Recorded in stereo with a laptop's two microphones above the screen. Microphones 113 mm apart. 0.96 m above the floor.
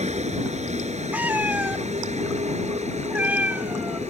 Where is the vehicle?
85° right.